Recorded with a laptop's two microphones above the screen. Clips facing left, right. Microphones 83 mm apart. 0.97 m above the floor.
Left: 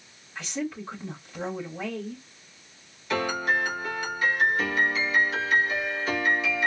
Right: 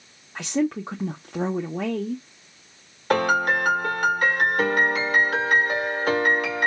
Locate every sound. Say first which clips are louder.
0.3 s a woman speaking: right 8 dB; 70° right (ahead or behind), 0.8 m
3.1 s a piano: right 6 dB; 55° right (ahead or behind), 1.1 m